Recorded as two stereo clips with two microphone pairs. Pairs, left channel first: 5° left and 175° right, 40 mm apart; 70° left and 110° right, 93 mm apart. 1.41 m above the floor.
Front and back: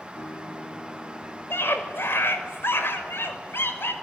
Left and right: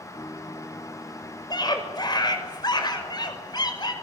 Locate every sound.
0.1 s a guitar: 20° left, 3.5 m
1.5 s a scream: 25° left, 5.5 m